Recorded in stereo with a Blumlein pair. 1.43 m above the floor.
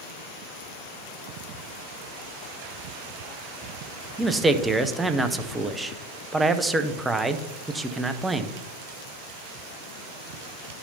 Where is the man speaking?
10° right, 0.5 m.